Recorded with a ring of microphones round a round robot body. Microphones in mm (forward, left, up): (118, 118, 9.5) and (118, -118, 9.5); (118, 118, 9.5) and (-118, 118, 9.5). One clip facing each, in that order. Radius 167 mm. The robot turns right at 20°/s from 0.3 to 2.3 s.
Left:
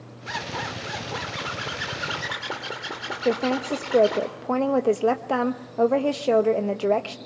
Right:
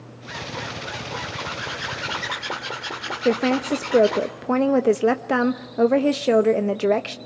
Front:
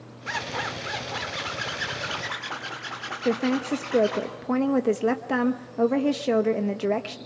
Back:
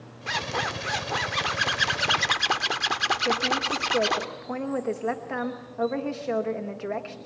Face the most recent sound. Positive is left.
turn(degrees=-30)